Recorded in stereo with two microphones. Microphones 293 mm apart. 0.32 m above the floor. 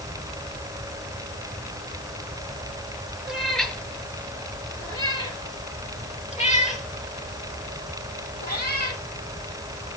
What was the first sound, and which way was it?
A cat meowing, centre (ahead or behind).